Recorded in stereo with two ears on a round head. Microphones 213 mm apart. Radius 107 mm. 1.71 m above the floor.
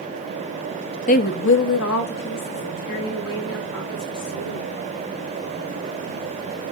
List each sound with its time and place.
1.1 s a woman speaking: 30° left (ahead or behind), 0.6 m; by 4.9 s 65° left (ahead or behind), 5.5 m